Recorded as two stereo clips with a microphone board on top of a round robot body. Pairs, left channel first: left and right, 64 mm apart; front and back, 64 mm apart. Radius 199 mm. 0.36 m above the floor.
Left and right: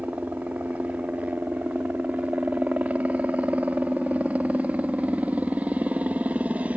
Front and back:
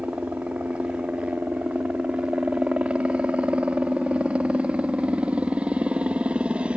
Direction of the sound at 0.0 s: 130° right.